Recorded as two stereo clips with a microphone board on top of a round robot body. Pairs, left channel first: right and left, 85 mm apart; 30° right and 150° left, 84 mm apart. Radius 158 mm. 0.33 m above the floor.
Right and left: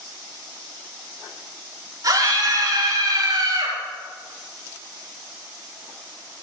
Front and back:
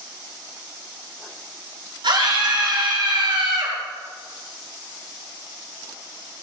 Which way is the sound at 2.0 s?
130° left.